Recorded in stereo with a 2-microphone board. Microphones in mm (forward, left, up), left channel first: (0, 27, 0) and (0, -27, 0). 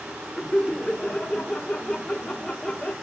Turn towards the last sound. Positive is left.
turn(degrees=15)  # may be behind; listen again after turning